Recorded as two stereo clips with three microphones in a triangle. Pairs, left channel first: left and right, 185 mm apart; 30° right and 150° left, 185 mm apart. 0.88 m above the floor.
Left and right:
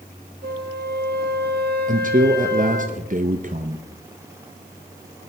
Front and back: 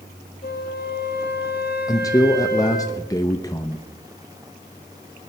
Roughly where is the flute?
Ahead right.